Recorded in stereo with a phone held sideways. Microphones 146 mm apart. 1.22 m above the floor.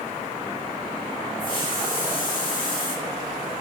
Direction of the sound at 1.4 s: 80° left.